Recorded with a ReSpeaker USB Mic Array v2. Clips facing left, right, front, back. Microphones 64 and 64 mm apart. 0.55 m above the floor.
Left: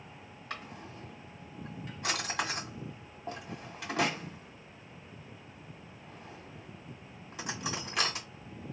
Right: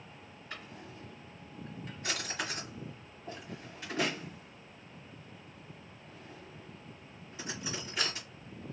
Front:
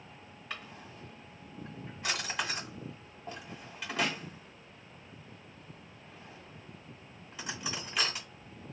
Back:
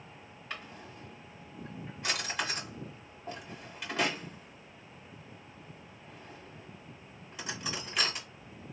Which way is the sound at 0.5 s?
95° left.